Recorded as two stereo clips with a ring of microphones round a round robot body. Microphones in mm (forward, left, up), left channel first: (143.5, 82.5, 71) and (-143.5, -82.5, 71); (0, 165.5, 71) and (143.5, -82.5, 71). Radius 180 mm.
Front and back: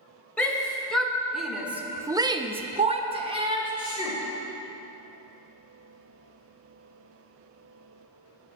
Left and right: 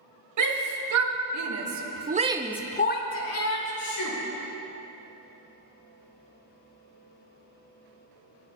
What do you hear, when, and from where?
0.4 s a shout: 55° right, 2.5 m; by 4.2 s 135° left, 2.0 m